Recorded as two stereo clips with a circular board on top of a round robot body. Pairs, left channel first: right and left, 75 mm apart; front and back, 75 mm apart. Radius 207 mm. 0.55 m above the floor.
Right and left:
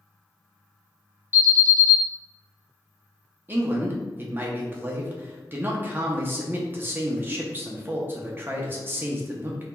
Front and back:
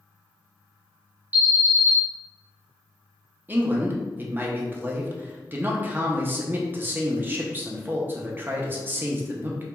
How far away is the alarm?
About 1.6 m.